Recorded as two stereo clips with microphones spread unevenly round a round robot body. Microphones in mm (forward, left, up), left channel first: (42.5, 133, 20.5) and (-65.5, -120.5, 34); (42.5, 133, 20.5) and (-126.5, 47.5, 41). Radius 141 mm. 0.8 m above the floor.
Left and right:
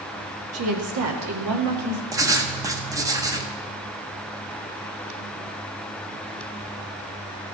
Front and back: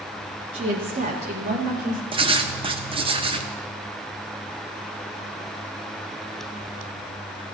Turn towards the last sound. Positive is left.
turn(degrees=180)